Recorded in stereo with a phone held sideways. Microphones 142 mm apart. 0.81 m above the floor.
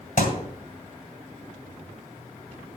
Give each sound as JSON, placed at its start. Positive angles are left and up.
{"t": 0.2, "sound": "a thud", "side_deg": 70, "distance_m": 2.0}